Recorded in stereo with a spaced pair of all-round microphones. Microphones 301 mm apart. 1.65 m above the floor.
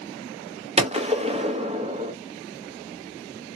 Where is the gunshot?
20° right (ahead or behind), 0.6 m.